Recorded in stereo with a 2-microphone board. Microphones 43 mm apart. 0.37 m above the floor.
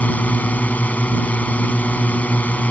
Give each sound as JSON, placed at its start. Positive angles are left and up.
{"t": 0.0, "sound": "a drone", "side_deg": 35}